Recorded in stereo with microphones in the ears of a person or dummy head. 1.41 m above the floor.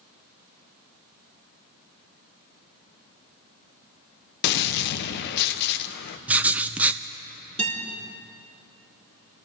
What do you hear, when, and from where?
4.4 s a gunshot: 55° left (ahead or behind), 0.6 m
6.3 s writing: 5° right (ahead or behind), 0.5 m
7.6 s a guitar: 30° right (ahead or behind), 4.5 m